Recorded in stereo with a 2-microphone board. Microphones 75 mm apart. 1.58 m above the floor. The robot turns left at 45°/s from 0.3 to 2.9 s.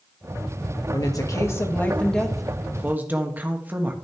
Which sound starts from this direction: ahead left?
A woman speaking, at 0.9 s.